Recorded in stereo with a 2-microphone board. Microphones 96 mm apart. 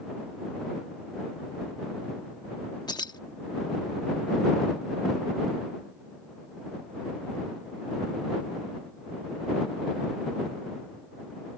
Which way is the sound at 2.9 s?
45° left (ahead or behind).